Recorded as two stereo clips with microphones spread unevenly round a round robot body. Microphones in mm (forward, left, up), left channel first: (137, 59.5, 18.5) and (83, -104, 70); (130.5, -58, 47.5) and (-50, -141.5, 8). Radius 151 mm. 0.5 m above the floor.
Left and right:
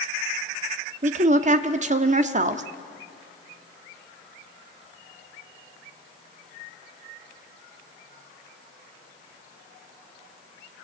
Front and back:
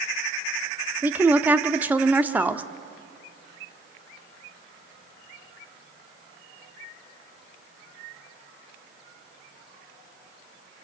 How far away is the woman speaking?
About 1.0 m.